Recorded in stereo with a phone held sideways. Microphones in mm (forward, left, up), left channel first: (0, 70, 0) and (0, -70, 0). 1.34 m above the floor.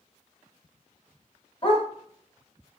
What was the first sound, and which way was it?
A dog barking, 35° left (ahead or behind).